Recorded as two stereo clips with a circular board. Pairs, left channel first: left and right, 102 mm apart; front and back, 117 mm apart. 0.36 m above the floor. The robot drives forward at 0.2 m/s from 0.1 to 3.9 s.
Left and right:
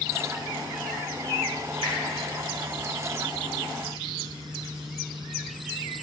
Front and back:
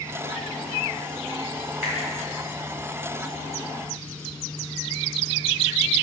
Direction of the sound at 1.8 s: 95° right.